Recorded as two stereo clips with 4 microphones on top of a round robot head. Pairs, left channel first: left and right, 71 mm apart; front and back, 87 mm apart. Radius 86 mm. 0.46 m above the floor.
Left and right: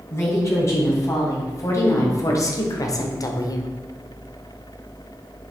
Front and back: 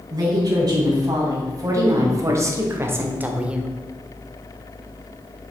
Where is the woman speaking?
135° left, 4 m; by 3.7 s 95° left, 1.2 m.